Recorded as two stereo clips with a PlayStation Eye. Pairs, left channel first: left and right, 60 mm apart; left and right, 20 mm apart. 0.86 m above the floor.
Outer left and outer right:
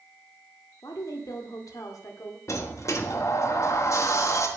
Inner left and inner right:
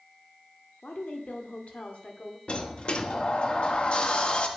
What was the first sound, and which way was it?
A woman speaking, 80° left.